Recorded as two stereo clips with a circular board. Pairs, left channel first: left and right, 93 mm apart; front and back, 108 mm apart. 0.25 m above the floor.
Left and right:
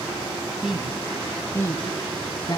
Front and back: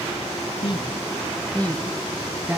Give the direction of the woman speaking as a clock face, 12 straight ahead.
12 o'clock.